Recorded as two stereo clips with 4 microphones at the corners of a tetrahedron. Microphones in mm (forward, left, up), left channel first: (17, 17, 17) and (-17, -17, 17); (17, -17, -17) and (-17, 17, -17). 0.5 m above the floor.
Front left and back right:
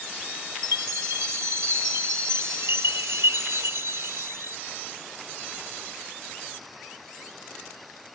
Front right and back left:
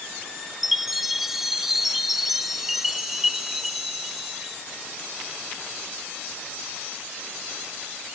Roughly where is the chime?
Behind right.